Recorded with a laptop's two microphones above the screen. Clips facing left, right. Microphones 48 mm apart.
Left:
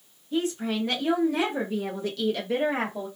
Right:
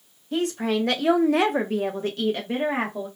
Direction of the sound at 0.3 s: 70° right (ahead or behind).